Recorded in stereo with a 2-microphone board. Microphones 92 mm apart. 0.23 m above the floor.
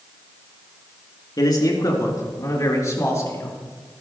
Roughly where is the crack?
No crack in this recording.